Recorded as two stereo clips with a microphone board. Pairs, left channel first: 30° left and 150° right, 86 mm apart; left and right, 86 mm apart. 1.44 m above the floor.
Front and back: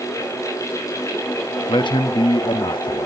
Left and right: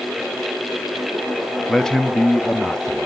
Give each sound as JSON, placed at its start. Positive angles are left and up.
{"t": 1.7, "sound": "a man speaking", "azimuth_deg": 5, "distance_m": 0.6}